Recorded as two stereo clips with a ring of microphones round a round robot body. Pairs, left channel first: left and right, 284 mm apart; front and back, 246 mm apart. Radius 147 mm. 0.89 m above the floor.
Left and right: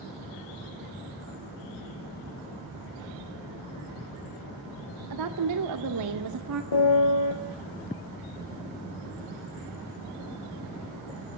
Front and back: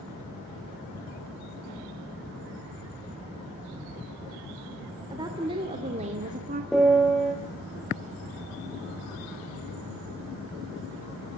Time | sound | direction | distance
5.1 | a woman speaking | 105° right | 2.5 m
6.7 | a piano | 90° left | 4 m